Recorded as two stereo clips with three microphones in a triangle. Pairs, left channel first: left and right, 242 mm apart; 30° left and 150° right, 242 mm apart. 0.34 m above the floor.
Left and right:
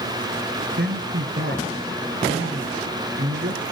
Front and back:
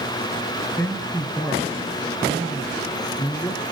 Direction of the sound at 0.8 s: 50° right.